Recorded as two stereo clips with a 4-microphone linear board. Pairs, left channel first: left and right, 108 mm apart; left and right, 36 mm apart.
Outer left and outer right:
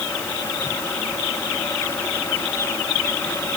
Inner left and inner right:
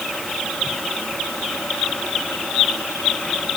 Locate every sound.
Only background noise.